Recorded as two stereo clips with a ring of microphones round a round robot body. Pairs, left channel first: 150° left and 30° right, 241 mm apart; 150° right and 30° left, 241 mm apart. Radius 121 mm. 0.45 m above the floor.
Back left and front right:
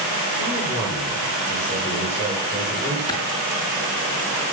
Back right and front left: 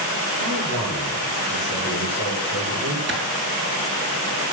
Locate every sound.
0.4 s a man speaking: 70° left, 9.5 m
3.1 s a clap: 75° left, 4.5 m